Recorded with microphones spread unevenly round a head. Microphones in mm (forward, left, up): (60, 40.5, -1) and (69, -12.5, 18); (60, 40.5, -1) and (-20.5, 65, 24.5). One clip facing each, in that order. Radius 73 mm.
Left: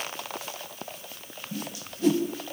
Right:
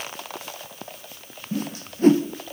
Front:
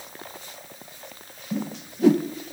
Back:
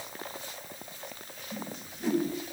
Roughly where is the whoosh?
Ahead right.